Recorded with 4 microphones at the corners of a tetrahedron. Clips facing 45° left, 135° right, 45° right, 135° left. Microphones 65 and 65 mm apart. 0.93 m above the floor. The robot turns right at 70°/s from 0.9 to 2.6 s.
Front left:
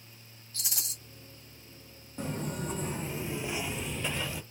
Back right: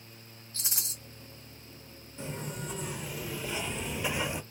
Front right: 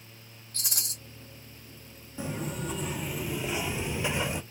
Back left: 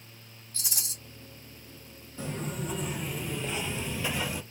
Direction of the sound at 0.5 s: 80° right.